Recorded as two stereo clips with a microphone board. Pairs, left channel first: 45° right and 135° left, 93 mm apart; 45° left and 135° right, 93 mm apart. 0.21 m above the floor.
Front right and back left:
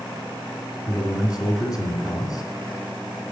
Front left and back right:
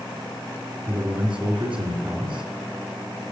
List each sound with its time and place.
0.9 s a man speaking: 65° right, 2 m